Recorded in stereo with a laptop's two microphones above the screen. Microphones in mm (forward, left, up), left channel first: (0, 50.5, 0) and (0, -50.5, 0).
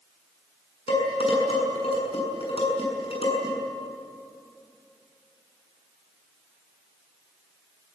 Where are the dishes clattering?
85° left, 7.5 m.